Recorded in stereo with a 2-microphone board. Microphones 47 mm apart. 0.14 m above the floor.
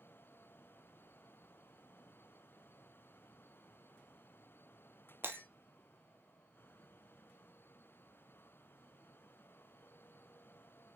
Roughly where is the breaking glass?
Right.